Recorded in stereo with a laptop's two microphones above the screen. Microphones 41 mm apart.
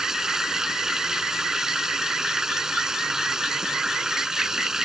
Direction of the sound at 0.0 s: 10° right (ahead or behind).